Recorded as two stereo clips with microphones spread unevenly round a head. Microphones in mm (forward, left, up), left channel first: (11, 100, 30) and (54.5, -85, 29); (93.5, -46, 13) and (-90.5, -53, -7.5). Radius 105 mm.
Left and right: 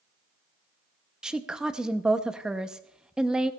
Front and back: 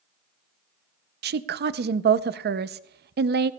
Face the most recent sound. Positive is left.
turn(degrees=-165)